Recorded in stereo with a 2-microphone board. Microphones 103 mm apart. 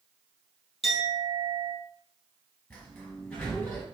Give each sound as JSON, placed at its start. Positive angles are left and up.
{"t": 0.8, "sound": "a clink", "side_deg": 70, "distance_m": 2.5}
{"t": 2.7, "sound": "a sliding door", "side_deg": 20, "distance_m": 1.8}